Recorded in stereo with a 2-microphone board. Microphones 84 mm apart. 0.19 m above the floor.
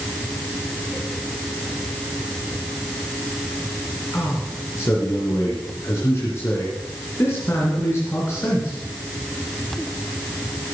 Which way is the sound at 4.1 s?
30° left (ahead or behind).